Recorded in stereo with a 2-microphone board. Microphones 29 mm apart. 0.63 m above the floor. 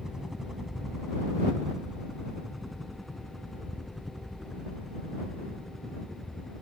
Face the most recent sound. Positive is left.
turn(degrees=10)  # may be behind; listen again after turning